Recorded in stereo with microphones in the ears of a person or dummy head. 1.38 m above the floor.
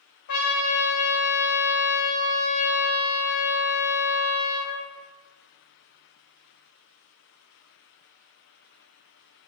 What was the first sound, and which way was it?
A trumpet, 60° left (ahead or behind).